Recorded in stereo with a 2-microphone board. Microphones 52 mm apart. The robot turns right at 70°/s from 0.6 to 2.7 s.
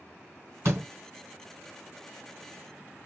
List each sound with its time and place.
0.7 s a door slam: 50° right (ahead or behind), 3 m; by 0.9 s 70° right (ahead or behind), 3 m